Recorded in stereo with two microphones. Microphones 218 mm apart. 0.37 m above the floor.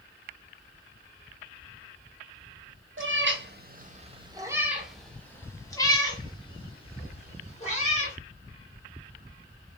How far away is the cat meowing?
About 1.1 m.